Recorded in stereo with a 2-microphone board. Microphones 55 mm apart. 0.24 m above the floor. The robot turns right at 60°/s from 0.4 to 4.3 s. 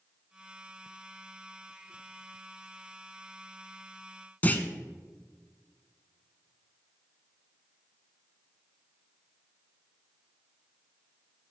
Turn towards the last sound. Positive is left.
turn(degrees=30)  # may be behind; listen again after turning